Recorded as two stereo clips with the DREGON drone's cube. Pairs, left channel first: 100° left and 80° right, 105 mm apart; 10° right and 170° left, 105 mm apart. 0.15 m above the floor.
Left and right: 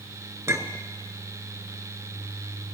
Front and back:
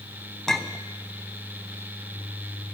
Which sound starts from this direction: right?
A clink, at 0.5 s.